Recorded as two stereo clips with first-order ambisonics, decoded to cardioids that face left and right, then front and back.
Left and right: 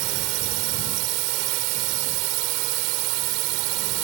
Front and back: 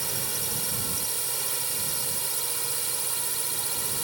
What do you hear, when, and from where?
0.0 s a drone: 100° right